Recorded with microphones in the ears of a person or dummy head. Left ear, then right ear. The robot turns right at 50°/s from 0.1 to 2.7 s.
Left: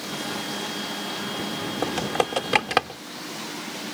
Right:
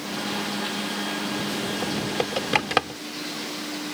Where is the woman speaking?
I don't hear a woman speaking.